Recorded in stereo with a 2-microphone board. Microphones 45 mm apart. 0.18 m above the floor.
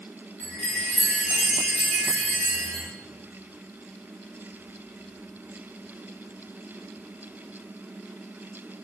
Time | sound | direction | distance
0.4 | a chime | 20° left (ahead or behind) | 3 m